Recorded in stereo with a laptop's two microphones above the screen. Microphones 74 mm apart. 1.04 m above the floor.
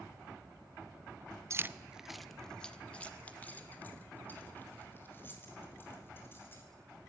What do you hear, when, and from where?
1.5 s keys jangling: 40° right (ahead or behind), 0.5 m; by 6.6 s 30° left (ahead or behind), 4.5 m